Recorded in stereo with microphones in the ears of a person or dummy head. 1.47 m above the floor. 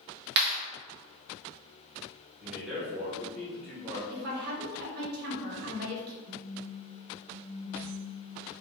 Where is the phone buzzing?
50° right (ahead or behind), 1.8 m.